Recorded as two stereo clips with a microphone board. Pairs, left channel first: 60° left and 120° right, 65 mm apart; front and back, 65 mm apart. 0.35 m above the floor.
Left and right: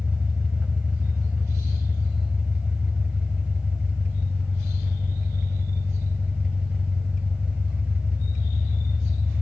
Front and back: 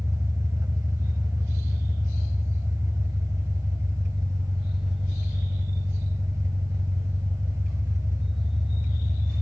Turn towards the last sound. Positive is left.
turn(degrees=175)